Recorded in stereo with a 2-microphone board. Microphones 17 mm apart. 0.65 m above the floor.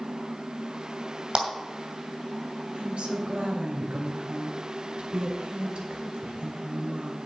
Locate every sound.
1.4 s a clap: 50° right (ahead or behind), 2.5 m
2.7 s a woman speaking: 75° right (ahead or behind), 3 m